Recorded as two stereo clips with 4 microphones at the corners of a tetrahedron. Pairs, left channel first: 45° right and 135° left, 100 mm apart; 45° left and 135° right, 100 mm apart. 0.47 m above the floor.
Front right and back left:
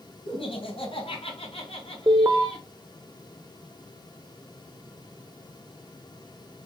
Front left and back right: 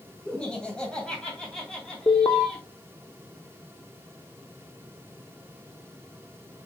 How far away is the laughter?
About 2.5 m.